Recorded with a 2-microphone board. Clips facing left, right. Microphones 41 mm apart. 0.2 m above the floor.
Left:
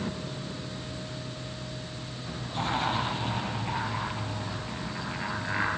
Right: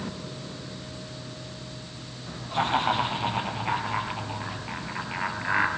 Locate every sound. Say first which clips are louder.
2.5 s laughter: right 5 dB; 40° right (ahead or behind), 7 m; by 5.7 s 25° right (ahead or behind), 4 m